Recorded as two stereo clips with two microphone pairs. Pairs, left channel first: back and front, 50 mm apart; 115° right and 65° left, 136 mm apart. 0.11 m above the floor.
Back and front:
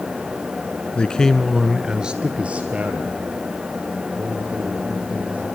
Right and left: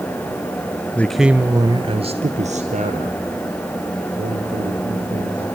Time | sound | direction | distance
0.9 | a man speaking | 170° right | 1.1 m